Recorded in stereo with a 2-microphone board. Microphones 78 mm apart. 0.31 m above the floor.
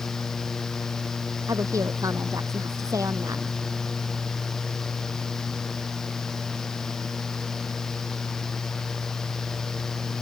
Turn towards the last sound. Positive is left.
turn(degrees=-40)  # may be behind; listen again after turning